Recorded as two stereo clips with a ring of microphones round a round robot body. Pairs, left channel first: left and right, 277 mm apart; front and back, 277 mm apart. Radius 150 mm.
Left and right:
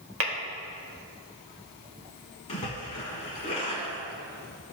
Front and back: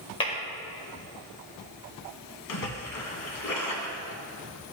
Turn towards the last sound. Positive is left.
turn(degrees=20)